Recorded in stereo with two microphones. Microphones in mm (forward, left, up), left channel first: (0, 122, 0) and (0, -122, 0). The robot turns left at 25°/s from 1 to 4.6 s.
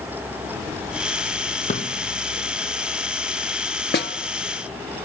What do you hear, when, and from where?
1.7 s a drawer: 30° left (ahead or behind), 2.5 m; by 1.9 s 25° left (ahead or behind), 2.5 m
3.9 s a snare drum: 45° left (ahead or behind), 0.8 m